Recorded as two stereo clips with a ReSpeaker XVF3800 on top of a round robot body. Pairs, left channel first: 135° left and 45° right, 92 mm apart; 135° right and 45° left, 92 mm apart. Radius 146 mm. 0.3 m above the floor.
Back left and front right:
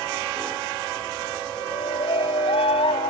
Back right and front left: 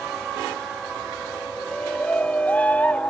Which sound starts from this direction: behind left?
A shout, at 1.6 s.